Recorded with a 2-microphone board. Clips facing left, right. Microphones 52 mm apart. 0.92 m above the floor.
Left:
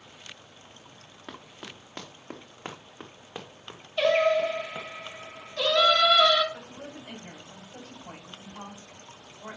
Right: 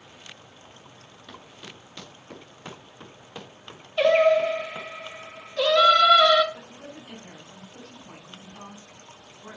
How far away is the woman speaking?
About 5.5 m.